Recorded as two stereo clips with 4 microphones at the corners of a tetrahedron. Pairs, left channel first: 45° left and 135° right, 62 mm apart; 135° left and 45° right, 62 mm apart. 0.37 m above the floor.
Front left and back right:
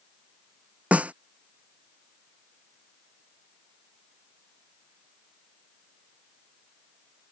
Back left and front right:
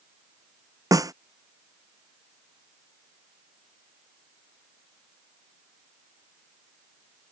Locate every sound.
0.9 s a snare drum: 70° right